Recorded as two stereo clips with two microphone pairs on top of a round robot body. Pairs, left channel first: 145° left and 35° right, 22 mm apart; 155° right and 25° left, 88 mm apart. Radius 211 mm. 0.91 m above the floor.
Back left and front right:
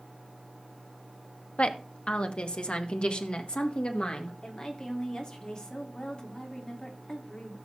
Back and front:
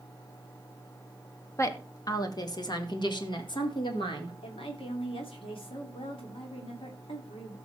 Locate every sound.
1.6 s a woman speaking: 155° left, 1.3 m; by 4.3 s 175° right, 2.5 m
4.4 s a woman speaking: 160° right, 3 m